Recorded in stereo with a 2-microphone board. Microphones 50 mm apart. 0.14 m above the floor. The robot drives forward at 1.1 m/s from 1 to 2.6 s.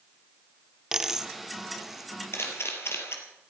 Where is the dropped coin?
10° right (ahead or behind), 0.9 m; by 2.1 s 5° right (ahead or behind), 2 m.